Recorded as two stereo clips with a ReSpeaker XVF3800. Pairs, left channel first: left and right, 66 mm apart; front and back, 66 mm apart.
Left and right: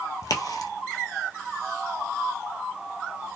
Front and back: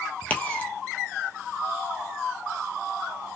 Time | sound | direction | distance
0.2 | a crack | 65° left | 1.3 m